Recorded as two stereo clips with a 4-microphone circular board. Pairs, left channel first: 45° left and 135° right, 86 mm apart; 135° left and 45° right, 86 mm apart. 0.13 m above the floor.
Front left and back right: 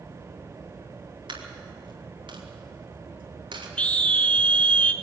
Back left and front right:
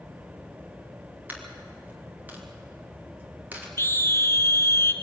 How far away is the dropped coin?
About 5 m.